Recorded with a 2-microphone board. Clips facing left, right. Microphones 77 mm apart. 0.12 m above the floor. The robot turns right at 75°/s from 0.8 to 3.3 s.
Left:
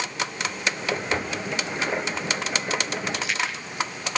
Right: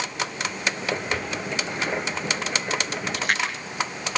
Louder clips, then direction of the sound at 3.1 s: Right 2 dB; 40° right (ahead or behind).